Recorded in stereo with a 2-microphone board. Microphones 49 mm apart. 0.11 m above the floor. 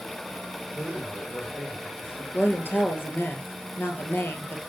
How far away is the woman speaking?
About 2 m.